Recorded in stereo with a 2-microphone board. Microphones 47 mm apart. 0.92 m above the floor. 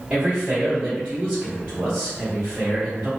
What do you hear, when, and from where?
0.1 s a man speaking: 25° right (ahead or behind), 1.1 m